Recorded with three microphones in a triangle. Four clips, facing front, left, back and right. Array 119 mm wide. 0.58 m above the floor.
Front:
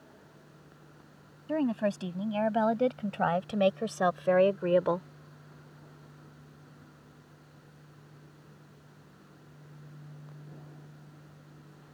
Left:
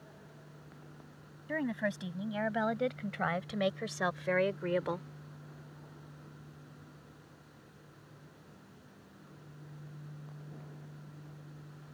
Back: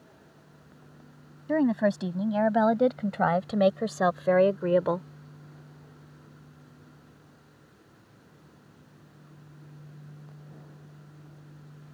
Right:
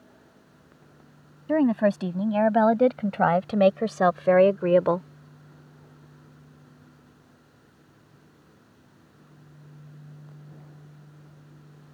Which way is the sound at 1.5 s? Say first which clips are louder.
Right 14 dB, back 5 dB; 105° right.